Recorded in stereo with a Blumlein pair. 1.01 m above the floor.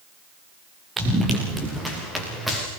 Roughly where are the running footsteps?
Ahead.